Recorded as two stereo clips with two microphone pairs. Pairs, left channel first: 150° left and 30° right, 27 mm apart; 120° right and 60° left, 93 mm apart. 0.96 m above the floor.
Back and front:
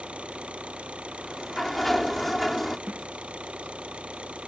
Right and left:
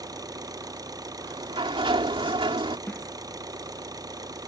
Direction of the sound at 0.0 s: 10° left.